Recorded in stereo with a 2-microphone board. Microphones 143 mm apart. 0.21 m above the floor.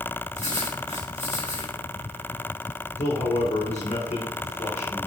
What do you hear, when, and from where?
0.3 s writing: 55° left (ahead or behind), 3.5 m
3.0 s a man speaking: 50° left (ahead or behind), 3.5 m